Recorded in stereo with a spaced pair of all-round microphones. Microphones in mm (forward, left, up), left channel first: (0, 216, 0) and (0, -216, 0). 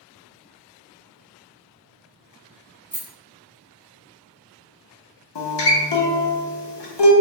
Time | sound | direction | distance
2.9 | a rattle | 50° right (ahead or behind) | 0.9 m
5.3 | a guitar | 65° left (ahead or behind) | 0.7 m